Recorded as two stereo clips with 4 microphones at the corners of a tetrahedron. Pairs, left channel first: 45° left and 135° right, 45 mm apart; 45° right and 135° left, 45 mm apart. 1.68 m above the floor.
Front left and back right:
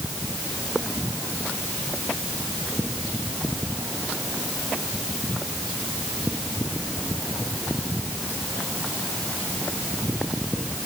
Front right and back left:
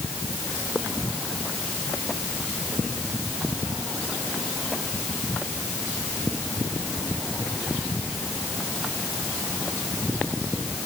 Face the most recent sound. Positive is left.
No sound to turn to.